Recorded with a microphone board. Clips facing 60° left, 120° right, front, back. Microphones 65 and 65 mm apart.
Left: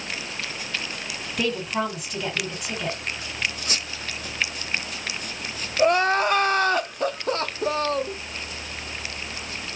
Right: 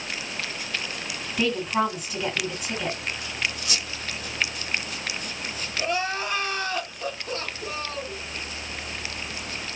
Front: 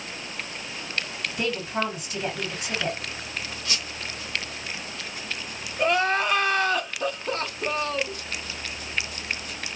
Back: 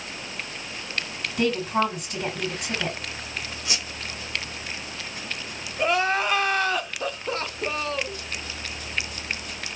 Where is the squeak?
110° left, 0.7 m.